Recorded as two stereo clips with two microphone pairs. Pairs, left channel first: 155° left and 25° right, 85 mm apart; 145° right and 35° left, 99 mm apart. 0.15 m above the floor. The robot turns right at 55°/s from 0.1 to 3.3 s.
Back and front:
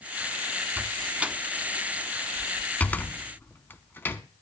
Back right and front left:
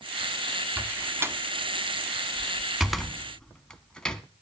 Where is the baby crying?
I don't hear a baby crying.